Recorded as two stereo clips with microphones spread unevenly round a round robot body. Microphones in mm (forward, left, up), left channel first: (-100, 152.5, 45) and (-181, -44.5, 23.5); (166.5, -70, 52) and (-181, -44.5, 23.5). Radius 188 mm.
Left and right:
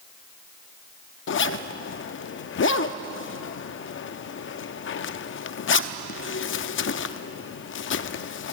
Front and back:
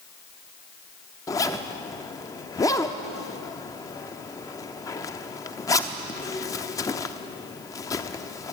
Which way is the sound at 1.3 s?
80° left.